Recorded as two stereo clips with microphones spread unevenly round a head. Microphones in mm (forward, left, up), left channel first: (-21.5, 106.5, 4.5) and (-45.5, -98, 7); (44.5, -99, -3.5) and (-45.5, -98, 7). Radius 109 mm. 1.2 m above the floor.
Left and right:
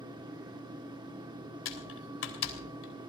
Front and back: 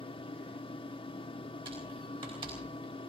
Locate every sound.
0.0 s a fan: 25° right, 1.4 m
1.6 s typing on a keyboard: 110° left, 3 m